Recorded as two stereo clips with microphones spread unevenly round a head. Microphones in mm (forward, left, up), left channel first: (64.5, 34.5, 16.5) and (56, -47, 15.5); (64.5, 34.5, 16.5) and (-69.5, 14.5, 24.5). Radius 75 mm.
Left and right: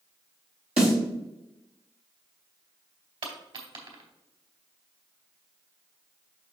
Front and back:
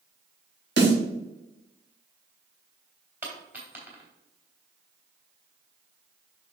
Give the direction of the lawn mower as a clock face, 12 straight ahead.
No lawn mower in this recording.